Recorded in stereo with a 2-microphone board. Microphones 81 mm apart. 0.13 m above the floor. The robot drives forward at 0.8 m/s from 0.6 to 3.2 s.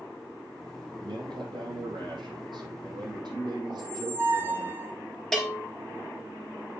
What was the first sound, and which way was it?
A man speaking, 75° right (ahead or behind).